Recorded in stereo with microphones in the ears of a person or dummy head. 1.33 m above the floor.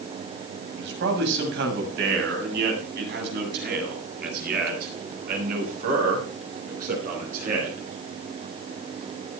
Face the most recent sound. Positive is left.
turn(degrees=-50)  # may be behind; listen again after turning